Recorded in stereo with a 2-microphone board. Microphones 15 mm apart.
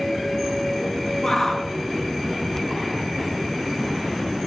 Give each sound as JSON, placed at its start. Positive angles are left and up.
{"t": 1.2, "sound": "a shout", "side_deg": 40, "distance_m": 2.5}